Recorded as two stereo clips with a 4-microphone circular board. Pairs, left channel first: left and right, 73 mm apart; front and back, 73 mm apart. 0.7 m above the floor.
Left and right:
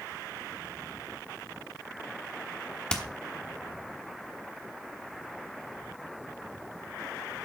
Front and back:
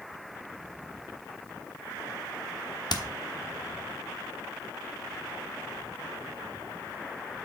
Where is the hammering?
15° left, 0.9 m.